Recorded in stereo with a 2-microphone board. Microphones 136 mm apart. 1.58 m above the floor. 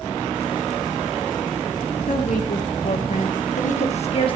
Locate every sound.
2.1 s a woman speaking: 70° left (ahead or behind), 2.5 m; by 4.4 s 40° left (ahead or behind), 1.4 m